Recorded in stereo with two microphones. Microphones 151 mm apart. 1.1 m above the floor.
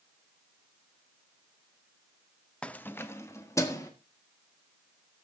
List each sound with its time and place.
2.6 s keys jangling: 5° left (ahead or behind), 0.6 m; by 3.9 s 20° left (ahead or behind), 1.9 m